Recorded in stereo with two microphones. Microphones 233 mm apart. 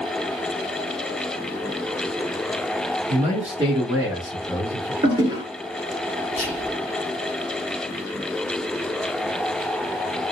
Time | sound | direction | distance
3.1 | a man speaking | 35° right (ahead or behind) | 1.5 m
5.0 | a toilet flushing | 20° right (ahead or behind) | 1.5 m
6.3 | whispering | 30° right (ahead or behind) | 1.6 m